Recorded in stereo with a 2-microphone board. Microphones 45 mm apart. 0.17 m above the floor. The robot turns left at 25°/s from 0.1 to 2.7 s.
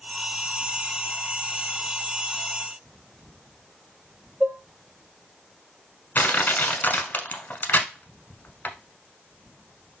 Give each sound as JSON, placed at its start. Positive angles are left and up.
{"t": 4.4, "sound": "dishes clattering", "side_deg": -35, "distance_m": 1.4}
{"t": 6.2, "sound": "crushing", "side_deg": 45, "distance_m": 0.7}